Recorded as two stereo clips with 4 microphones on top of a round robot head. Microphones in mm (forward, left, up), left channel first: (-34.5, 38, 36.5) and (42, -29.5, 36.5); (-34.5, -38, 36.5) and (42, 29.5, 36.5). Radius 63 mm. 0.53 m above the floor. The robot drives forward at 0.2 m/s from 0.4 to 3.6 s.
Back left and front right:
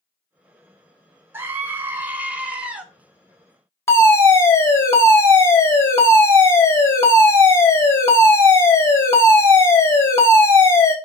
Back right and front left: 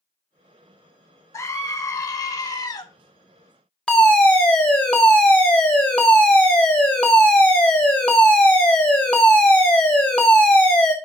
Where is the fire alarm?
155° left, 1.7 m.